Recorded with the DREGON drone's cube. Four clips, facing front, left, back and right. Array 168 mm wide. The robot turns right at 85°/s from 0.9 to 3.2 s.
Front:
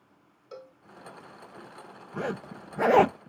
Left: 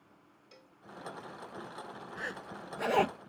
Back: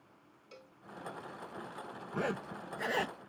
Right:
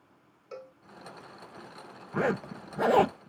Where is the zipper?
90° right; by 3.3 s straight ahead.